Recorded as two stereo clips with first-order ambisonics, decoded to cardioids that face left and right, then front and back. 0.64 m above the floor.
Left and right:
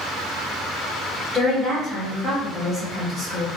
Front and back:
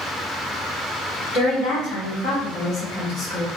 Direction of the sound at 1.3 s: 15° right.